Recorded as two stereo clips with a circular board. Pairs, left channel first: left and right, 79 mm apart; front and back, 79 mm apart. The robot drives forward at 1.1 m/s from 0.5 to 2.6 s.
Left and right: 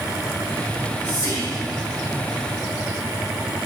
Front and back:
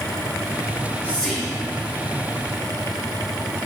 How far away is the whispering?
About 1.3 m.